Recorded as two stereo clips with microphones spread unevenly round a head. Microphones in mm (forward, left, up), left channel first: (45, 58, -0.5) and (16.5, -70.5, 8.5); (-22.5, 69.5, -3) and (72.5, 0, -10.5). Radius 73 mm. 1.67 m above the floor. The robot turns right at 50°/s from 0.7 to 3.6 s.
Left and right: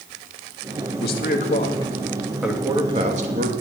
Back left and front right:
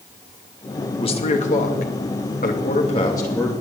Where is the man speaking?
100° left, 2.5 m; by 3.5 s 130° right, 2.5 m.